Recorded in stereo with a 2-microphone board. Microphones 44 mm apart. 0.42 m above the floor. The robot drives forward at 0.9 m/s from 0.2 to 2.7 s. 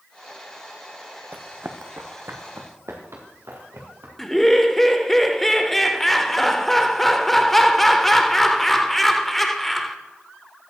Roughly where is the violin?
I don't hear a violin.